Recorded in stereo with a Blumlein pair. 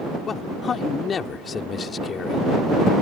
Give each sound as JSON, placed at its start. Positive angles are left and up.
{"t": 0.3, "sound": "a man speaking", "azimuth_deg": 20}